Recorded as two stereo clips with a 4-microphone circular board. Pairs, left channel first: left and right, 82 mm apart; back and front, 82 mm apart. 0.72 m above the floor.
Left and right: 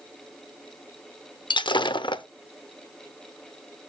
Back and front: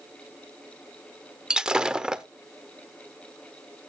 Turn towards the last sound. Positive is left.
turn(degrees=80)